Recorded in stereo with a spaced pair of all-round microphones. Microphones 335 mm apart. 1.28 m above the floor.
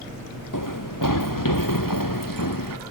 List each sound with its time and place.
0.5 s running footsteps: 65° left (ahead or behind); by 2.8 s 75° left (ahead or behind)